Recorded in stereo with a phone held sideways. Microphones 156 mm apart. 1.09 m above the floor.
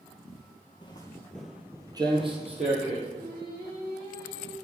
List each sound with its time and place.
0.8 s footsteps: 35° left (ahead or behind), 1.4 m; by 3.0 s 50° right (ahead or behind), 2.5 m
3.1 s singing: 80° right, 1.3 m